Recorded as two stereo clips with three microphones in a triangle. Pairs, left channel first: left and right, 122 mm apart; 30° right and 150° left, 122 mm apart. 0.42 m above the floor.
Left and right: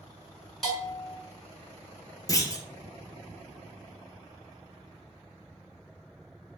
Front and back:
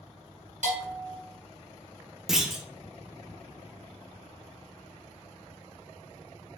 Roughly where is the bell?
Behind.